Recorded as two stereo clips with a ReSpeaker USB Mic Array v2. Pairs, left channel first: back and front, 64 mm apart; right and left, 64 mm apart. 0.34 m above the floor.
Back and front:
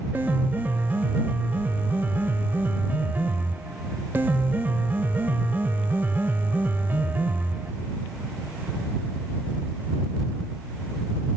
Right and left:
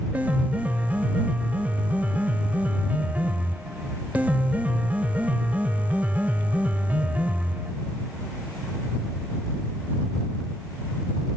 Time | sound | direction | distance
0.1 | a piano | 40° left | ?